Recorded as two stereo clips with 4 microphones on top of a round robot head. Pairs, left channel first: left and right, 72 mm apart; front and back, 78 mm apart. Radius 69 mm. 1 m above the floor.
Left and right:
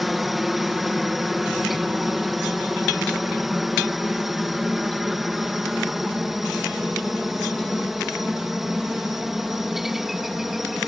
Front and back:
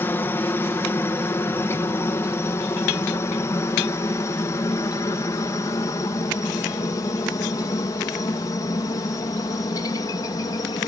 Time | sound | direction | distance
0.0 | a helicopter | 5° right | ?